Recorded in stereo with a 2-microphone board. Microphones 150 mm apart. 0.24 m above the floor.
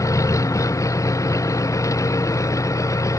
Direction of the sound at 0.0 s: 20° left (ahead or behind).